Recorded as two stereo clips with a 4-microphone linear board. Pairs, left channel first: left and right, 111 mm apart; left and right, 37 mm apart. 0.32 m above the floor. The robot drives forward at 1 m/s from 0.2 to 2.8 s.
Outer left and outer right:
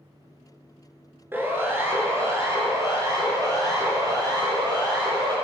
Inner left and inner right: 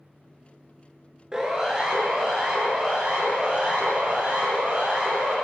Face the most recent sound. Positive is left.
turn(degrees=-40)  # may be behind; listen again after turning